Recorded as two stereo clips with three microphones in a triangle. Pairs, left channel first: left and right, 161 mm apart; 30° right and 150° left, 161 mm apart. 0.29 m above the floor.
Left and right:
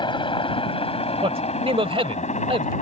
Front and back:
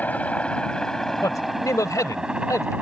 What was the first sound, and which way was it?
A helicopter, 45° left.